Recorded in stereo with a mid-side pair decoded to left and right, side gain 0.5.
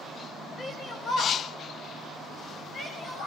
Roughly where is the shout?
Ahead left.